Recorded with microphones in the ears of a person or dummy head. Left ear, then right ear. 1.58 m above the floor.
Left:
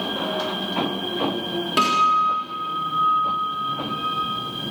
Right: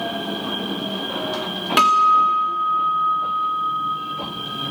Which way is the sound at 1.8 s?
25° right (ahead or behind).